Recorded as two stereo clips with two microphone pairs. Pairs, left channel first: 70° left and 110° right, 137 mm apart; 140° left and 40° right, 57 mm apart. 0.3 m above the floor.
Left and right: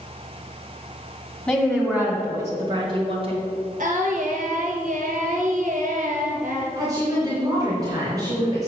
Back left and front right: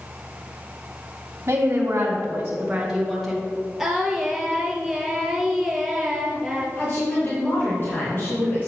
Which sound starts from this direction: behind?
A woman speaking, at 6.8 s.